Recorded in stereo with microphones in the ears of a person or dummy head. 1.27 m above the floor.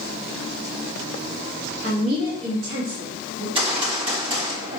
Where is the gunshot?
30° right (ahead or behind), 3 m.